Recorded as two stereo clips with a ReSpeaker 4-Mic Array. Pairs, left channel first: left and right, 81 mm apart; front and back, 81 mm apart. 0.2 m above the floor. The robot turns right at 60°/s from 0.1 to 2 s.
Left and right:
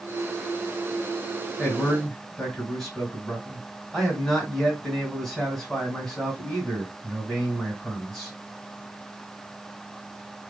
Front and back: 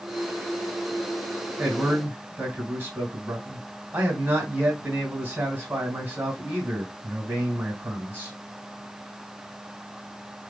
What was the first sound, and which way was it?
A man speaking, 145° left.